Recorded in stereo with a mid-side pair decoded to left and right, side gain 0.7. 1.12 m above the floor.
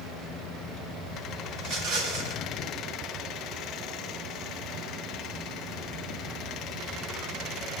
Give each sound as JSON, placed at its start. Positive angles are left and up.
{"t": 1.6, "sound": "a rattle", "azimuth_deg": -70, "distance_m": 3.5}